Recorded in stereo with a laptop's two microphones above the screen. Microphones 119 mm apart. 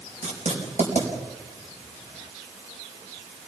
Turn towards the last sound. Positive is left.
turn(degrees=-90)